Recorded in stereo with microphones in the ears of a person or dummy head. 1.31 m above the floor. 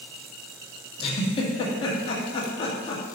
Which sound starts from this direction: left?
A giggle, at 1.0 s.